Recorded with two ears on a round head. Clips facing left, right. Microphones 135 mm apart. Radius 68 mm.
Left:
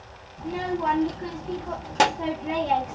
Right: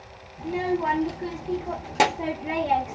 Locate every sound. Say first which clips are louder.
0.4 s a child speaking: right 2 dB; 5° right (ahead or behind), 0.7 m